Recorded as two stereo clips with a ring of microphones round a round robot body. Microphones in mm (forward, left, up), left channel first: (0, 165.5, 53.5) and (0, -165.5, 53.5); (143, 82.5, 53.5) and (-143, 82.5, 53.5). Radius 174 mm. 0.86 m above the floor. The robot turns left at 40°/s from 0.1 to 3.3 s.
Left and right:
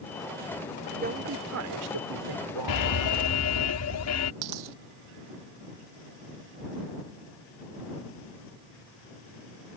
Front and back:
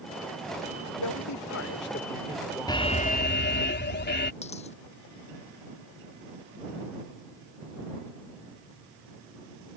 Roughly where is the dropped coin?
Right.